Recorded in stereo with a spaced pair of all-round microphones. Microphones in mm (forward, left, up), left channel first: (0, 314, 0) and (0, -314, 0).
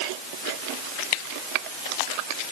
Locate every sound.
Only background noise.